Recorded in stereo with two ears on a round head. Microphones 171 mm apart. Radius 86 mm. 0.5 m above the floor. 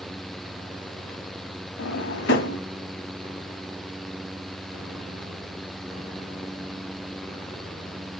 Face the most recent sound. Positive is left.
turn(degrees=65)  # may be behind; listen again after turning